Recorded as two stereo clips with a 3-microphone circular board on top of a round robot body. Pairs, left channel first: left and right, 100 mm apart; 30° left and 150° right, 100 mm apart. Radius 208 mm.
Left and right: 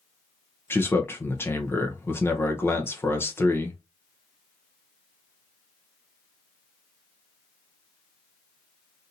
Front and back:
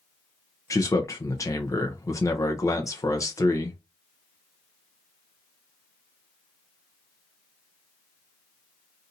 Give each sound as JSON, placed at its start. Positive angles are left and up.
{"t": 0.7, "sound": "a man speaking", "azimuth_deg": 45, "distance_m": 1.0}